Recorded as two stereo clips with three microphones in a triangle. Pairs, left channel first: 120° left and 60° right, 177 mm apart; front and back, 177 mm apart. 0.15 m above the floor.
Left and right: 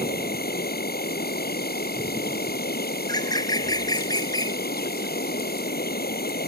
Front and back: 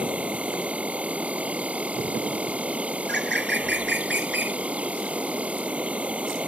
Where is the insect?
100° left.